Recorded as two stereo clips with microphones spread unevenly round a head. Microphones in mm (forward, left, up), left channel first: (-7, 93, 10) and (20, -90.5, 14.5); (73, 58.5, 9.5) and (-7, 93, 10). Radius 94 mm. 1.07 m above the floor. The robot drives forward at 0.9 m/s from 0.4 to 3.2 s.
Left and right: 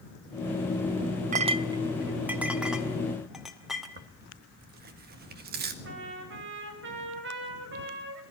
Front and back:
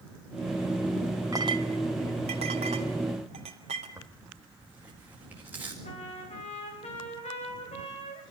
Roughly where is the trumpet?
Ahead right.